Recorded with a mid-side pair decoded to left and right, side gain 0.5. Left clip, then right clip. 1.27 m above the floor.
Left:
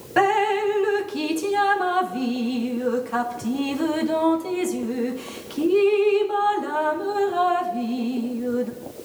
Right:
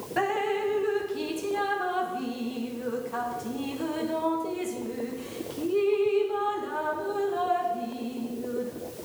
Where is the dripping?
50° left, 0.7 m.